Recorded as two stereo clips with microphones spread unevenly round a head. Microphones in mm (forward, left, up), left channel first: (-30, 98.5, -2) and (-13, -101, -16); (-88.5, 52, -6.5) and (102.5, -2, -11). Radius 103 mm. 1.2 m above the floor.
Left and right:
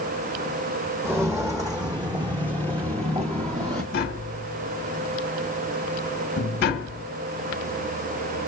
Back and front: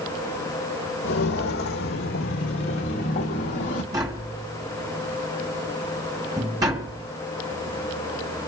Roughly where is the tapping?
Ahead left.